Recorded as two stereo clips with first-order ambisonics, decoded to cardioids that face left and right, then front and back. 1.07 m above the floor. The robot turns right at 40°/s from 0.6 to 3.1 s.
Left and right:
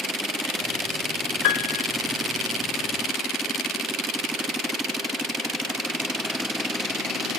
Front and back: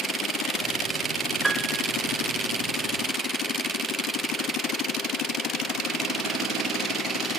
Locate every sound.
1.4 s a piano: 100° left, 0.6 m; by 1.9 s 115° left, 0.6 m